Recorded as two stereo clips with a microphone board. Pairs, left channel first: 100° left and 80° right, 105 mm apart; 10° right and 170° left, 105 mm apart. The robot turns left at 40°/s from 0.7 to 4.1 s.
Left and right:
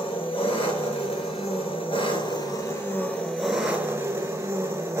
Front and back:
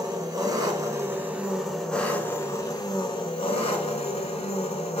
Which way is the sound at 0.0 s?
120° left.